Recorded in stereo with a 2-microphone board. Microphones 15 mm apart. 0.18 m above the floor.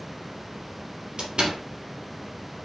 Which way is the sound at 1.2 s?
65° right (ahead or behind).